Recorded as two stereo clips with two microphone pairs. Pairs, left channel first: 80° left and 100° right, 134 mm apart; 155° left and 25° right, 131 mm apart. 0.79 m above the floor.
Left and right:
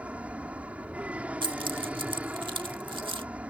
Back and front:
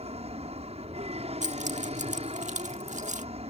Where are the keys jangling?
45° right.